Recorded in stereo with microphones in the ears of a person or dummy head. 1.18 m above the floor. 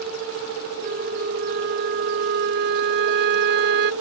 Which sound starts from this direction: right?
A flute, at 0.8 s.